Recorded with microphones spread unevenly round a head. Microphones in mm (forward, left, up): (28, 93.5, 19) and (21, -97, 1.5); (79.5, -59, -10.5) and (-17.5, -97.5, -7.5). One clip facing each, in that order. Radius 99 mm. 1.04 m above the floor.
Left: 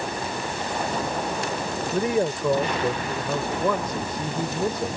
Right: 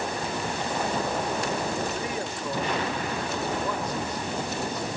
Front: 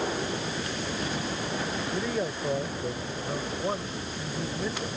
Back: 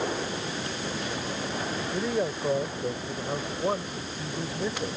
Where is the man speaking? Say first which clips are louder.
Left 9 dB, back 4 dB; 120° left.